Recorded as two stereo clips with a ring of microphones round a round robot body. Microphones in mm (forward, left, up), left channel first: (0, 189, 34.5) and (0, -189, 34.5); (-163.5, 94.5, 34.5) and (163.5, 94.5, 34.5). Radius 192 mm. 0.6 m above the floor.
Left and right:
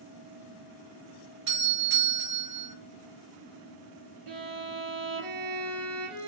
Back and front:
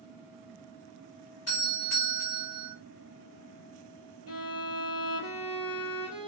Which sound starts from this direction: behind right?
A doorbell, at 1.5 s.